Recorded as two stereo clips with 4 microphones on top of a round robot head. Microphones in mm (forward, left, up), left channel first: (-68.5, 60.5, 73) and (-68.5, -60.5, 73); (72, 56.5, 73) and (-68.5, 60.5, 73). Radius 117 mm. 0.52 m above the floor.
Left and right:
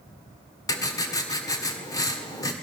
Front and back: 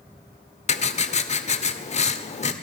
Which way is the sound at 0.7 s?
30° left.